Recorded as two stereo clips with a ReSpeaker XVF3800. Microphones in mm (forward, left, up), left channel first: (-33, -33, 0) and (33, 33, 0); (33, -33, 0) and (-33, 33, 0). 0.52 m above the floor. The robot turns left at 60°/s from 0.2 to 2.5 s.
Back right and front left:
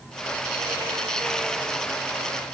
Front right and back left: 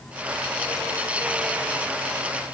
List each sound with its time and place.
Only background noise.